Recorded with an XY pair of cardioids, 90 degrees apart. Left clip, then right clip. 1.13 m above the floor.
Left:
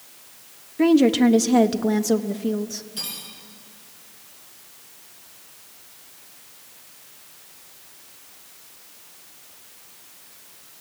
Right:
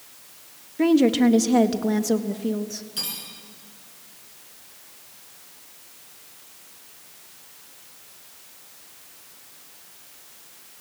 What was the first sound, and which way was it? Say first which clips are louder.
A woman speaking: left 2 dB; 10° left.